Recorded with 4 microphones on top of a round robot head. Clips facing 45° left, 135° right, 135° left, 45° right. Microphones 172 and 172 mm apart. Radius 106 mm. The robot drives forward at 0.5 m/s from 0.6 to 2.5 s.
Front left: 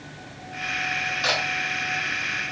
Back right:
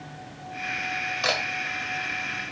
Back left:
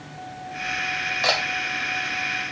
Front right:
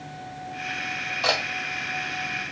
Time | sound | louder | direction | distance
1.2 | a camera shutter | even, back left 1 dB | 145° right | 1.3 m